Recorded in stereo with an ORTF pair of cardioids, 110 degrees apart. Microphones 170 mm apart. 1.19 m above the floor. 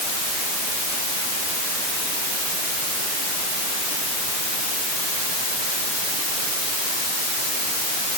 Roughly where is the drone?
No drone in this recording.